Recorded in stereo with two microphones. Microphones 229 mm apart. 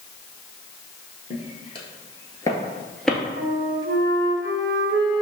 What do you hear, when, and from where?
1.3 s footsteps: 25° left (ahead or behind), 1.1 m; by 3.2 s centre (ahead or behind), 0.9 m
3.4 s a flute: 60° right (ahead or behind), 0.9 m